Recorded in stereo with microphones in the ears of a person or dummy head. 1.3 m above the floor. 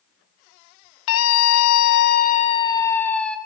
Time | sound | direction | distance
1.1 | a scream | 80° left | 1.4 m